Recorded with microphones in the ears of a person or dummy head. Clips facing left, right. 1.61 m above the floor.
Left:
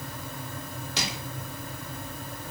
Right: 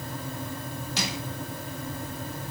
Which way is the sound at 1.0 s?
65° left (ahead or behind).